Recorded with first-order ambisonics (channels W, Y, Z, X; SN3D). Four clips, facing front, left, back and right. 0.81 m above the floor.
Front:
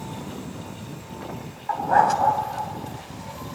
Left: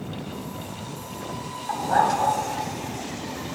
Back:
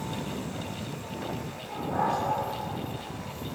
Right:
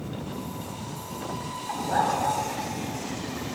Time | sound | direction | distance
1.7 | a dog barking | 15° left | 2 m